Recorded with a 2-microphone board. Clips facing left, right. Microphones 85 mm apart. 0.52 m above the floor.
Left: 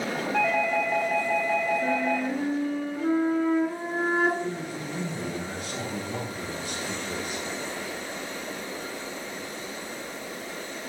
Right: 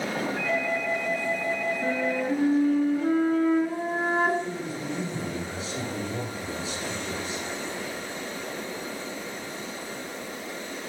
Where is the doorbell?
75° left (ahead or behind), 6.5 m.